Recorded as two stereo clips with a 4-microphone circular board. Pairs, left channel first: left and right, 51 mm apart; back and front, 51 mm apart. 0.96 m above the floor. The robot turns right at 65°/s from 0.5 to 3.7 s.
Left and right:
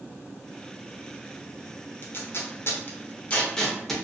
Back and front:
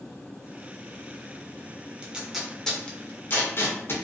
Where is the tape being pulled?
60° left, 0.6 m; by 3.9 s 170° left, 0.6 m.